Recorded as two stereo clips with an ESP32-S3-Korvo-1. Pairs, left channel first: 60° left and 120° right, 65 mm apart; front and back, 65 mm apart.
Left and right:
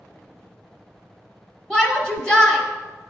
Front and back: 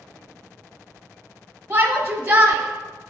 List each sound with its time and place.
1.7 s a shout: 135° left, 1.2 m